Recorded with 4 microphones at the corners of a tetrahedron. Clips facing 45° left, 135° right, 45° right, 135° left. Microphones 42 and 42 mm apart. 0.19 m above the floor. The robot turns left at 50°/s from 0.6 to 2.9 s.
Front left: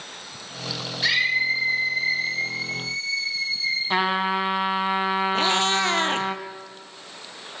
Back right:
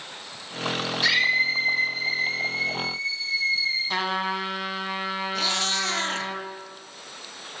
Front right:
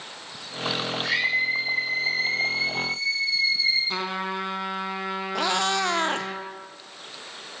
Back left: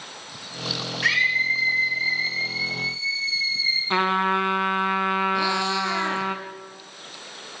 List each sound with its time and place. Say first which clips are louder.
1.0 s a scream: even, back left 5 dB; 130° left, 8.5 m; by 3.8 s 35° left, 8.5 m
3.9 s a trumpet: front left 4 dB, back left 8 dB; 105° left, 2.0 m
5.3 s a cat meowing: front left 5 dB, back left 1 dB; 15° right, 1.3 m